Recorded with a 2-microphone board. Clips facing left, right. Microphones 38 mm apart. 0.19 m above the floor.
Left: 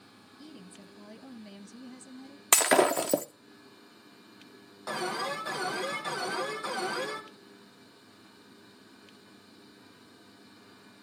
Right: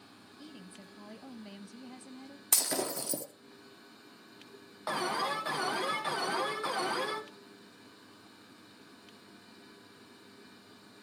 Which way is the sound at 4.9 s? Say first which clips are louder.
Even; 20° right (ahead or behind).